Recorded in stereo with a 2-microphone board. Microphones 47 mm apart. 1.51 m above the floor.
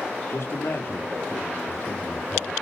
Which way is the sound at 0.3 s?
70° left (ahead or behind).